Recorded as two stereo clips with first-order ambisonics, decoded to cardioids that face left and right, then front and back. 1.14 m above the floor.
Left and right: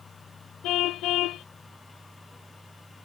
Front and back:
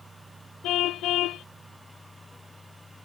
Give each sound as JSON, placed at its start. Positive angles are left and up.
{"t": 0.6, "sound": "a car horn", "azimuth_deg": 45}